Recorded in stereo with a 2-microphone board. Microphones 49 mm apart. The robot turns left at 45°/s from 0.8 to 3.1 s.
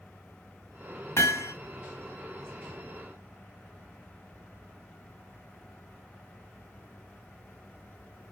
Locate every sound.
1.2 s hammering: 70° left (ahead or behind), 0.9 m; by 1.5 s 85° left, 0.9 m